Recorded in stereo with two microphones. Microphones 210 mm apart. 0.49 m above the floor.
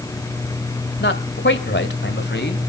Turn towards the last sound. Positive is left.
turn(degrees=55)  # may be behind; listen again after turning